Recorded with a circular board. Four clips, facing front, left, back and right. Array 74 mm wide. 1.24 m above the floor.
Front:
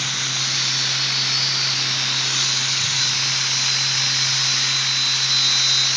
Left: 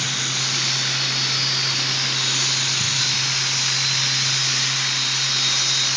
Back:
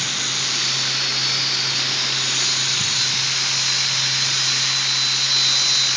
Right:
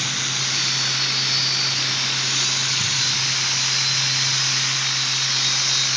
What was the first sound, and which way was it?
An insect, 155° left.